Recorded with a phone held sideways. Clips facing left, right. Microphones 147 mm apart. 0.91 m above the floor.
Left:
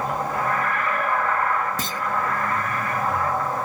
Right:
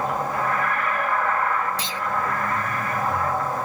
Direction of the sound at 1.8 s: 45° left (ahead or behind).